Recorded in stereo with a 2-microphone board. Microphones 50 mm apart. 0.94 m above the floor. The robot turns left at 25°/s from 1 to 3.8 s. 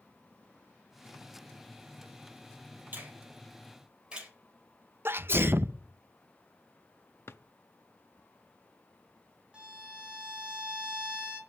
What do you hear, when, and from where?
2.9 s a finger snap: 40° right (ahead or behind), 4 m; by 4.3 s 20° right (ahead or behind), 4 m
5.0 s a sneeze: 50° right (ahead or behind), 0.5 m
7.3 s a drawer: 50° left (ahead or behind), 0.5 m
9.5 s a violin: 20° right (ahead or behind), 1.9 m